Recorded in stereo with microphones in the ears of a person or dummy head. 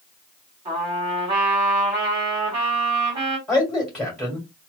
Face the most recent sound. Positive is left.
turn(degrees=0)  # may be behind; listen again after turning